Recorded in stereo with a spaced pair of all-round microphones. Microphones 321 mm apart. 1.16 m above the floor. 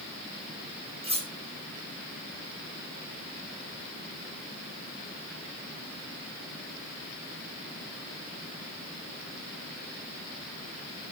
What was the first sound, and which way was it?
Cutlery clinking, 15° right (ahead or behind).